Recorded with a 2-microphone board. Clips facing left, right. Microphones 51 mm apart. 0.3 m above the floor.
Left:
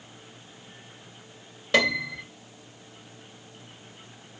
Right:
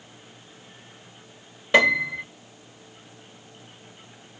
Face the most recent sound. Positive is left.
turn(degrees=-15)  # may be behind; listen again after turning